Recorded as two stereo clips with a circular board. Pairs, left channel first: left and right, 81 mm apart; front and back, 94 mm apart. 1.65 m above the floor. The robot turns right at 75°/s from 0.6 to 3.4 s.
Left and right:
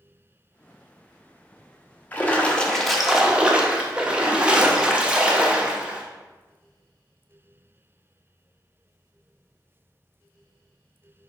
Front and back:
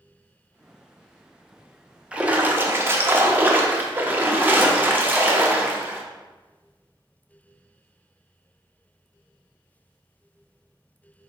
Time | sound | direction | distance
2.1 | a splash | 120° left | 0.5 m